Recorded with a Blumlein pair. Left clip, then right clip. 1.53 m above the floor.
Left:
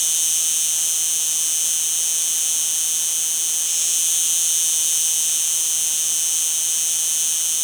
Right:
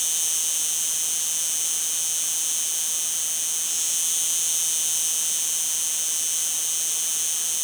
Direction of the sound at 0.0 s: 10° left.